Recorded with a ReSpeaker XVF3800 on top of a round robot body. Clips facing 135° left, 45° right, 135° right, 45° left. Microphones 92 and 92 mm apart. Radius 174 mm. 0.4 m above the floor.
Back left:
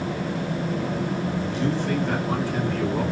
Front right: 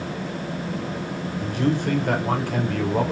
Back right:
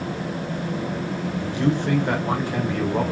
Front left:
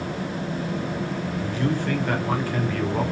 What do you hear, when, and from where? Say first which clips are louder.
1.4 s a man speaking: front right 6 dB, back right 4 dB; 70° right, 3.5 m